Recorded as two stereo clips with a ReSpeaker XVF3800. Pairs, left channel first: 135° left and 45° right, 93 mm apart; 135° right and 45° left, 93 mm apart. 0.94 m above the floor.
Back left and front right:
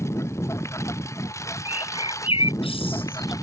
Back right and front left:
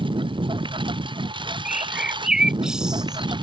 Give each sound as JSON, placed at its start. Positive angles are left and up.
{"t": 0.0, "sound": "a lawn mower", "azimuth_deg": 75}
{"t": 1.6, "sound": "a bird", "azimuth_deg": 130}